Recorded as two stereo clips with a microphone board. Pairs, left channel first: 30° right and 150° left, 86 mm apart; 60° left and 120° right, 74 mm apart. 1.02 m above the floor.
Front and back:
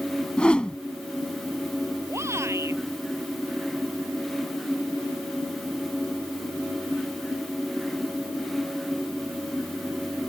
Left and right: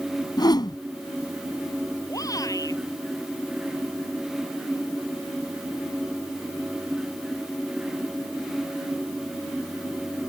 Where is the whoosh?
45° left.